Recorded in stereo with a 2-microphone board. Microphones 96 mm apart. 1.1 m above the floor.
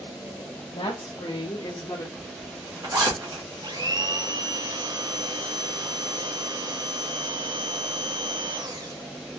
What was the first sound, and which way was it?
A woman speaking, 70° left (ahead or behind).